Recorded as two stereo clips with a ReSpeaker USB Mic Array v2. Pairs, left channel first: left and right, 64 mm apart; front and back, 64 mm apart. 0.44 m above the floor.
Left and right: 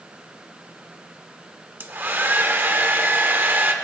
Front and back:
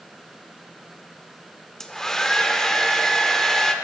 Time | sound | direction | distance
1.8 | a hair dryer | 75° right | 0.9 m